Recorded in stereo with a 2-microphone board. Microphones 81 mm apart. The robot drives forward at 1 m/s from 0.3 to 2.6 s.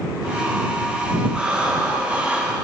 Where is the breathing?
10° right (ahead or behind), 5 m; by 2.5 s 15° right (ahead or behind), 4 m.